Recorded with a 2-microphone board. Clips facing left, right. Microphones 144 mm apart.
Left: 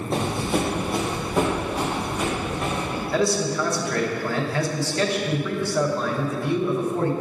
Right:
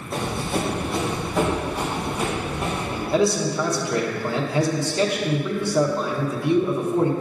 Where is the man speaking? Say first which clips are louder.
Right 3 dB; 20° right (ahead or behind), 0.9 m.